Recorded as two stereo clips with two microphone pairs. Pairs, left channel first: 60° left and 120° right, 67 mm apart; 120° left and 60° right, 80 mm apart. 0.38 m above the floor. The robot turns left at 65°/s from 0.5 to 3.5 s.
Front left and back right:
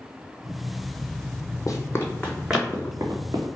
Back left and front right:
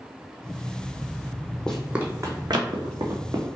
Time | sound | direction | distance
1.7 | running footsteps | 45° left | 0.7 m